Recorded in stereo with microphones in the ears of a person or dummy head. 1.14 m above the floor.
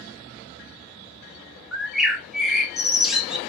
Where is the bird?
5° right (ahead or behind), 0.6 m.